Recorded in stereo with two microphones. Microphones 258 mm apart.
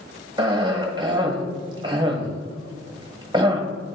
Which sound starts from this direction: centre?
A cough, at 0.4 s.